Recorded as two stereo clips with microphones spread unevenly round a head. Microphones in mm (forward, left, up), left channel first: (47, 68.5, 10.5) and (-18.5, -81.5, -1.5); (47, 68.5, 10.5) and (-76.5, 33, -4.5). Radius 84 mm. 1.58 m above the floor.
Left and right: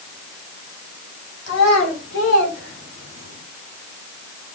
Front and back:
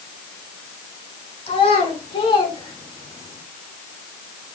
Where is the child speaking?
60° left, 5 m; by 3.4 s 80° left, 4 m.